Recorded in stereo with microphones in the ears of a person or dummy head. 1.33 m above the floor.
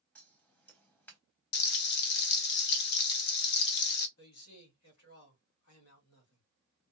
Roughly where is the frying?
Left.